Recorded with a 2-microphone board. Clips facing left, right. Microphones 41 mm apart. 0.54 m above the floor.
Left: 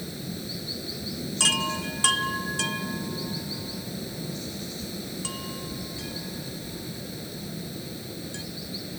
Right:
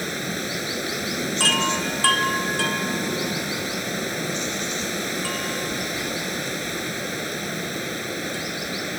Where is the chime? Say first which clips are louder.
Right 4 dB; 25° right (ahead or behind).